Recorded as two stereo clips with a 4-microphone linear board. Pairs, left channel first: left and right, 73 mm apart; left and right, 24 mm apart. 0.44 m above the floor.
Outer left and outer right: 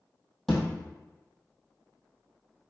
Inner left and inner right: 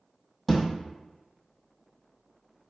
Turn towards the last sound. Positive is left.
turn(degrees=5)  # may be behind; listen again after turning